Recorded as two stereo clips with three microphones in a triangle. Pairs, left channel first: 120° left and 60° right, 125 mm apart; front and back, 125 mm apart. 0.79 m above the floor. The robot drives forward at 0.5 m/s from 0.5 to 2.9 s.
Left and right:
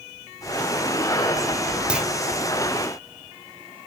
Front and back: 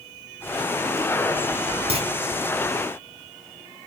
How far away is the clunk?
About 1.7 m.